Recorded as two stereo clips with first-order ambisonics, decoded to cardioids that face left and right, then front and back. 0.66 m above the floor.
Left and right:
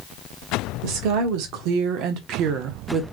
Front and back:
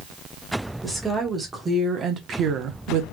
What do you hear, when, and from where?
0.8 s a woman speaking: 90° right, 1.6 m; by 3.0 s 160° right, 0.8 m